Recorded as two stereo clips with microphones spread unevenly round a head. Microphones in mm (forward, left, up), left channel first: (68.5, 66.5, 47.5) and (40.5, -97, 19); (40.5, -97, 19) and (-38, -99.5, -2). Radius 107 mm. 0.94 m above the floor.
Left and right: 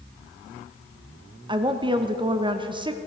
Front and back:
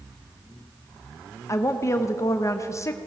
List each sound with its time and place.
1.5 s a woman speaking: 55° right, 0.8 m